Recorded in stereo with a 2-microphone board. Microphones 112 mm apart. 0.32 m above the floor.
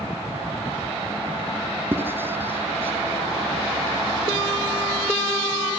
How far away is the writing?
About 3 m.